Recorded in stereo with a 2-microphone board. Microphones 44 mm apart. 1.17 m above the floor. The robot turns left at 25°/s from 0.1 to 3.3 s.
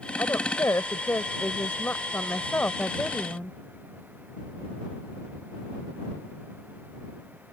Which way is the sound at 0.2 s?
100° left.